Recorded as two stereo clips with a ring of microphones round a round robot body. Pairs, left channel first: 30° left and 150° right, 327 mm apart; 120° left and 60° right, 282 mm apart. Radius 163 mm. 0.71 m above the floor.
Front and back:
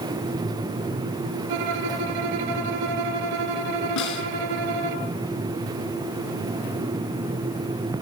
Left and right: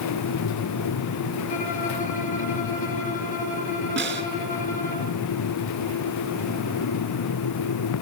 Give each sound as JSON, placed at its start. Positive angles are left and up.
{"t": 1.5, "sound": "a violin", "azimuth_deg": -170, "distance_m": 9.0}
{"t": 4.0, "sound": "a snare drum", "azimuth_deg": -5, "distance_m": 3.5}